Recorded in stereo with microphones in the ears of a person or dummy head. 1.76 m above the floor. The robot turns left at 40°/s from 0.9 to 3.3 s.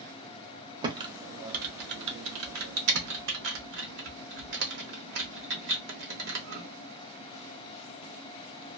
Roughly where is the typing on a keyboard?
Right.